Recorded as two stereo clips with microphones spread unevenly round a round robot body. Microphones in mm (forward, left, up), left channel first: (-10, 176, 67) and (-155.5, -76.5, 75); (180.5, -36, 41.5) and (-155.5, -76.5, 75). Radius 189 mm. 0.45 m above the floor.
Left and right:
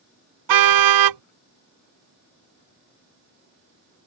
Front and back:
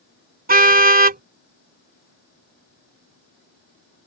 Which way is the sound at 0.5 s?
110° right.